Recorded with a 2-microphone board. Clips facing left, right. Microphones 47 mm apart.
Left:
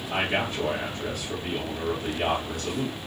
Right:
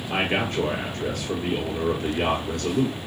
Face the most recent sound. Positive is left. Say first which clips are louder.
# right 3 dB
turn(degrees=-55)  # may be behind; listen again after turning